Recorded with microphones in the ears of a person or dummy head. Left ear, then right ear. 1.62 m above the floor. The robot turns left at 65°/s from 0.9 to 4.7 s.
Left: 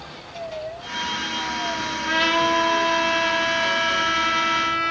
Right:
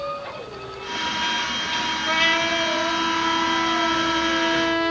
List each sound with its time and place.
2.1 s a trumpet: 165° left, 1.6 m; by 4.9 s 5° right, 1.6 m